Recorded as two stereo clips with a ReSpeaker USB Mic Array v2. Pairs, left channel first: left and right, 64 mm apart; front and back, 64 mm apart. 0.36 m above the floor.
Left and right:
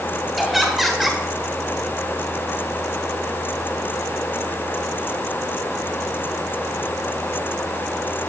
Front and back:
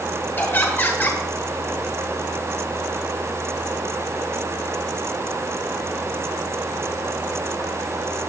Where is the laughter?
Straight ahead, 1.3 m.